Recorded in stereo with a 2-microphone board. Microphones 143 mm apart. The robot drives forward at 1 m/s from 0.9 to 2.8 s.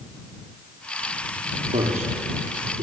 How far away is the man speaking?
About 6 m.